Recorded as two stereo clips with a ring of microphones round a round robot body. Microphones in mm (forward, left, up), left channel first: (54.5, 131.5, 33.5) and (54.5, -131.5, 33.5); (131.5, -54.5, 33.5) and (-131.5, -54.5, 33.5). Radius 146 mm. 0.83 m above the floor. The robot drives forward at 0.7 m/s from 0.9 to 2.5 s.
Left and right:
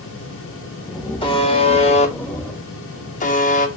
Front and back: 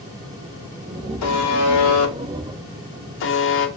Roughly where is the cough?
No cough in this recording.